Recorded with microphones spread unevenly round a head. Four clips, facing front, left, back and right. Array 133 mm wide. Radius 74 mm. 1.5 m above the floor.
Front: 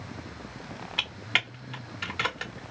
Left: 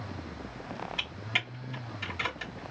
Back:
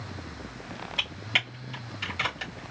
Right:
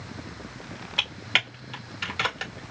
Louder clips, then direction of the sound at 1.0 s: Right 6 dB, front 2 dB; 55° right.